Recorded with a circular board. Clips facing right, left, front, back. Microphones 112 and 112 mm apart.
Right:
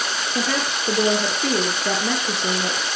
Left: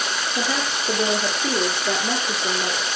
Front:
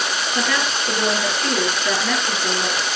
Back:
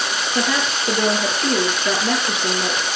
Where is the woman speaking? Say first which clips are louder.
Right 2 dB, back 2 dB; 115° right, 8 m.